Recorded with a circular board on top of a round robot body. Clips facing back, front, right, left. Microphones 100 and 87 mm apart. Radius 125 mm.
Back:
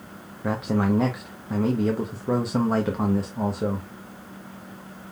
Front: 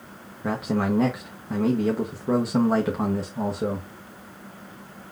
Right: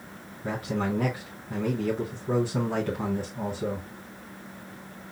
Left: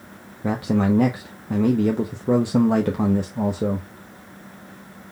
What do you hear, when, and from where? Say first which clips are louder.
0.4 s a man speaking: back 1 dB, left 8 dB; 90° left, 0.7 m